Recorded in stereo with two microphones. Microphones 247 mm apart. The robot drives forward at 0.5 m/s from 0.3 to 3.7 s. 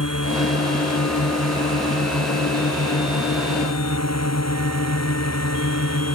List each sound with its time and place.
0.0 s a drone: 70° left (ahead or behind); by 6.2 s 75° left (ahead or behind)